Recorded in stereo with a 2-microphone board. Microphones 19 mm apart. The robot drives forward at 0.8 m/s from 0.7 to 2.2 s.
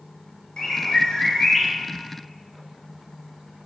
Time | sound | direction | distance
0.6 | a bird | 45° left (ahead or behind) | 0.7 m